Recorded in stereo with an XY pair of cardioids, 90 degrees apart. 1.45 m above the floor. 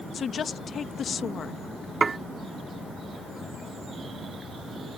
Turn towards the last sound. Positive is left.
turn(degrees=-30)